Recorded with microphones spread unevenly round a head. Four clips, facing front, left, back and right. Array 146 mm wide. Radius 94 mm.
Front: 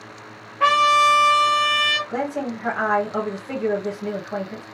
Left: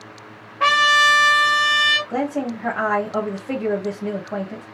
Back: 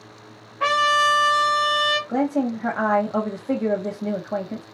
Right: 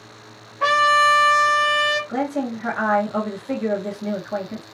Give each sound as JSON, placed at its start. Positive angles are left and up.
{"t": 0.6, "sound": "a trumpet", "azimuth_deg": 110, "distance_m": 1.5}
{"t": 2.1, "sound": "a woman speaking", "azimuth_deg": 165, "distance_m": 1.6}